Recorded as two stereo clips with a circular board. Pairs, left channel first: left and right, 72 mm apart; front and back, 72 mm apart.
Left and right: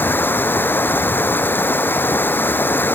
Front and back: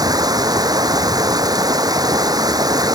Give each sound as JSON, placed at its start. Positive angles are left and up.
{"t": 0.0, "sound": "running water", "azimuth_deg": 155}